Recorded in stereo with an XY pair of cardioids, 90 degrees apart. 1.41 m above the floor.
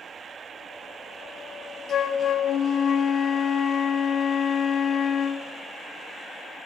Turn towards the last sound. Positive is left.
turn(degrees=65)